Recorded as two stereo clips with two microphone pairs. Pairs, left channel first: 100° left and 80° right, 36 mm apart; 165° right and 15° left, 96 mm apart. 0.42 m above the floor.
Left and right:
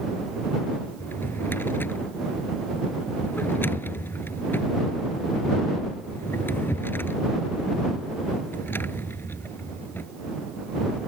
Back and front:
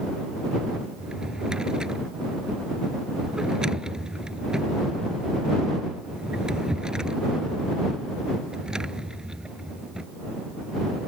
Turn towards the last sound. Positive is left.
turn(degrees=100)